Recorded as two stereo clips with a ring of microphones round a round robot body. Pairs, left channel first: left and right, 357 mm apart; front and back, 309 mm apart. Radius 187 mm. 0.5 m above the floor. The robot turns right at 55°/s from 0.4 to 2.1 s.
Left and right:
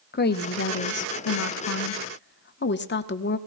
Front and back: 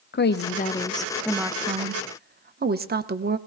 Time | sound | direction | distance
0.1 | a woman speaking | 40° left | 1.0 m